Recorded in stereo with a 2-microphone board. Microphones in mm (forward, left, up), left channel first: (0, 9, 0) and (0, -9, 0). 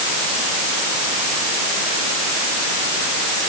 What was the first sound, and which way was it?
Only background noise.